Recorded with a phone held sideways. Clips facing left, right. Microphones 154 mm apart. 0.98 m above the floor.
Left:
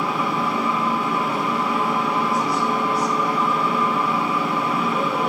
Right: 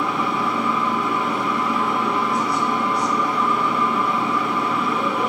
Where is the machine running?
5° left (ahead or behind), 3.5 m.